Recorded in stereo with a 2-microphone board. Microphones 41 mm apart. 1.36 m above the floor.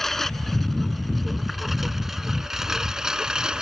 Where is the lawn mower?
5° left (ahead or behind); by 3.6 s 20° right (ahead or behind).